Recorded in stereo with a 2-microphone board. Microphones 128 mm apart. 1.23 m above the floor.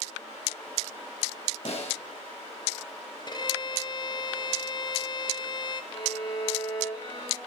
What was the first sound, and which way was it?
A snare drum, 55° left (ahead or behind).